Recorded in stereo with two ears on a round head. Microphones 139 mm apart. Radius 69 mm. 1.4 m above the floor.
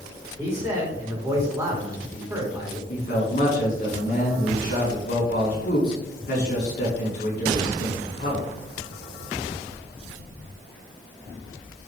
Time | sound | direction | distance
0.4 | a man speaking | 15° right (ahead or behind) | 3 m
2.9 | a man speaking | 50° left (ahead or behind) | 4 m